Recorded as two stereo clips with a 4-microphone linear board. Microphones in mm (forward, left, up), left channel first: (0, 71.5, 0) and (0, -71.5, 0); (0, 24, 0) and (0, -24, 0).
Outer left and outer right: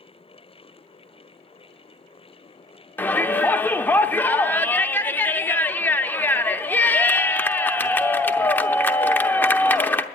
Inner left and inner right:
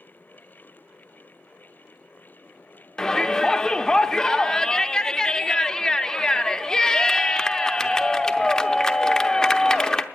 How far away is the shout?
About 0.7 m.